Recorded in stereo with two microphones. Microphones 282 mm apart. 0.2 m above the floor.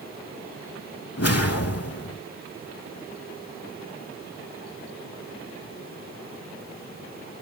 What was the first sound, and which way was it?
A whoosh, 55° left (ahead or behind).